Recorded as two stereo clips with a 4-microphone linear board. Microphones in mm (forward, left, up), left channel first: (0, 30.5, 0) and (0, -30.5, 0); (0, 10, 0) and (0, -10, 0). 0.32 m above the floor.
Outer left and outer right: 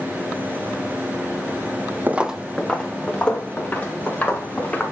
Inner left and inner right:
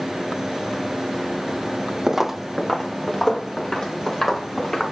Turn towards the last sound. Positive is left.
turn(degrees=25)  # may be behind; listen again after turning